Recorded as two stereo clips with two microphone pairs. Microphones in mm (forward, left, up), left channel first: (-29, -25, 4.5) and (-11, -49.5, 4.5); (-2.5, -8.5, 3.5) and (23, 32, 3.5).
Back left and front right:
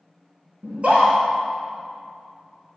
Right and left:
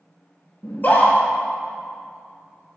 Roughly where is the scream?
Right.